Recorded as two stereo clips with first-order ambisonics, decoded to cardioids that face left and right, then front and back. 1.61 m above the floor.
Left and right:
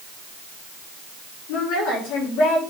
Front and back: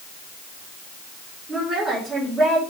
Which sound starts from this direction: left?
A woman speaking, at 1.5 s.